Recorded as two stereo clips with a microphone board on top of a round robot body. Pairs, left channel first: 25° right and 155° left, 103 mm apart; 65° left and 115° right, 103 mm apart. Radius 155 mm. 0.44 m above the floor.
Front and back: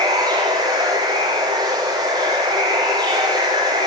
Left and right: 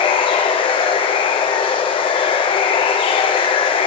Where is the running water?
105° left, 0.8 m.